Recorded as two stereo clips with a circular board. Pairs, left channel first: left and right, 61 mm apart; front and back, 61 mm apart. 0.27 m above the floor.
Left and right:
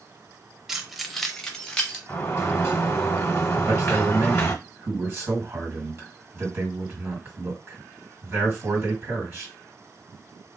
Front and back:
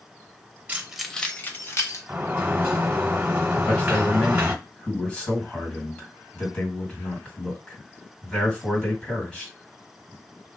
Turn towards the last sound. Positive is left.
turn(degrees=-70)